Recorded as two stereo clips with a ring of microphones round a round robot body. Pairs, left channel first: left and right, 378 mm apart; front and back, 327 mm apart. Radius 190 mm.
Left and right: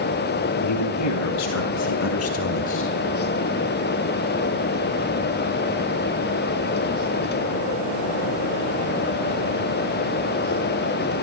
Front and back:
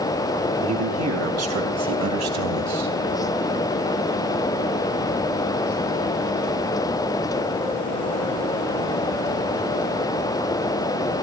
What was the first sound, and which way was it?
A man speaking, 135° left.